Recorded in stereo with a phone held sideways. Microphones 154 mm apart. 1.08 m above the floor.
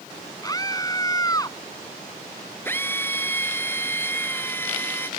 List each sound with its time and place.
0.4 s a scream: 25° left (ahead or behind)
2.6 s a drill: 15° left (ahead or behind)